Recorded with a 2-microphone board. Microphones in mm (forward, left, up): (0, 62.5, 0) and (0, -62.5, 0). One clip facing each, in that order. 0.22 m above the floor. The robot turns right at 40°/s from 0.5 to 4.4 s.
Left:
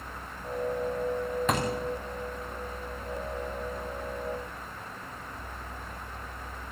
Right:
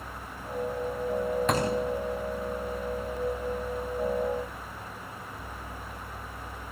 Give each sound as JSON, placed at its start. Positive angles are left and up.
{"t": 1.5, "sound": "a thud", "side_deg": 0, "distance_m": 5.5}